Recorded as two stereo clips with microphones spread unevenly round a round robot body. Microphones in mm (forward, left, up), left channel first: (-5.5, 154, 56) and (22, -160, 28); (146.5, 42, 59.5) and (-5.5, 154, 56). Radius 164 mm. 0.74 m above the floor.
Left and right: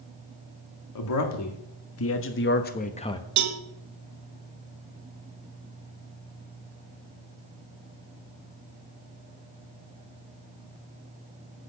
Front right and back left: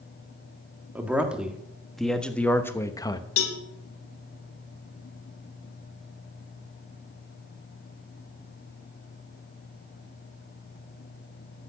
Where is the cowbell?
45° right, 1.3 m.